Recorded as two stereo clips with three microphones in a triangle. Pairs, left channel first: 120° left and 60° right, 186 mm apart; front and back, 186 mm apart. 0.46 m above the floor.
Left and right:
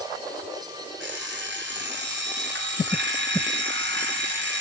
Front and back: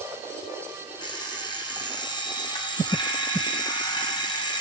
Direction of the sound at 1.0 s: 65° right.